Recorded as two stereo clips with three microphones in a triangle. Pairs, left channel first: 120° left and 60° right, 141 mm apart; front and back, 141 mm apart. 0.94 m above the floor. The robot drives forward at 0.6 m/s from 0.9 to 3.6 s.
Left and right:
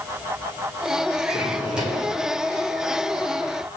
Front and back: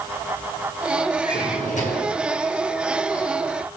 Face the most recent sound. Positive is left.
turn(degrees=35)